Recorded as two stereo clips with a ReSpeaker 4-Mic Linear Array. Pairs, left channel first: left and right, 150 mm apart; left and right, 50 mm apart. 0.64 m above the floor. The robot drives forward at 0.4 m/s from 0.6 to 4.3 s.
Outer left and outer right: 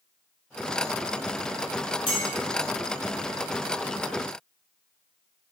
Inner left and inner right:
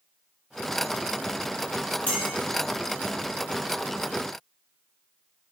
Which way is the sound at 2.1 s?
30° left (ahead or behind).